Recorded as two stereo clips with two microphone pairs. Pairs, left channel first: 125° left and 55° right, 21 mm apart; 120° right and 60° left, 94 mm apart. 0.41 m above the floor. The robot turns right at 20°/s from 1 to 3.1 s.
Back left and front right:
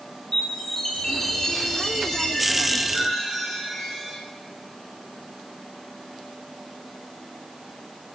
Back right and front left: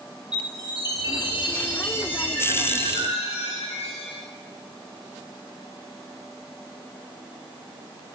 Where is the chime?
165° right, 8.5 m; by 4.2 s 120° right, 8.5 m.